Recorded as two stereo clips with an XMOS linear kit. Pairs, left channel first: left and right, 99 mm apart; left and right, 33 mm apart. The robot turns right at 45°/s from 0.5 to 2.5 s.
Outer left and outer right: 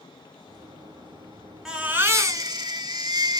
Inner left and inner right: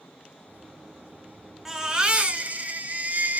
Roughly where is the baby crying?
Behind.